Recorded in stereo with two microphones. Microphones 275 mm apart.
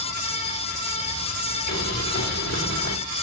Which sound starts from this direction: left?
Boiling, at 1.7 s.